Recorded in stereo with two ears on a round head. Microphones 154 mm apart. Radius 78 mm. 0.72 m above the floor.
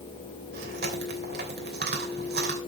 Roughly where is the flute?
I don't hear a flute.